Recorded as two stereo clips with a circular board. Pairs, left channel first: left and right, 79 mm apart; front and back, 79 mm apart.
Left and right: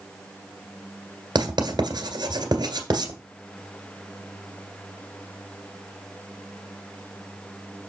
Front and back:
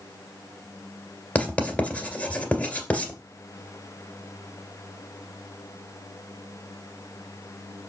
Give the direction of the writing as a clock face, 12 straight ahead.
2 o'clock.